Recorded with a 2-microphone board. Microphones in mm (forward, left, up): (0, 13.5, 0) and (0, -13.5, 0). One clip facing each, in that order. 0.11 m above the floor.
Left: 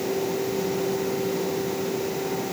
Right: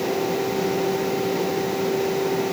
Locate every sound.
Only background noise.